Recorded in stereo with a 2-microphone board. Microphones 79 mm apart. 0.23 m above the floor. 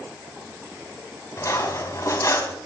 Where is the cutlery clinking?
40° left (ahead or behind), 1.0 m.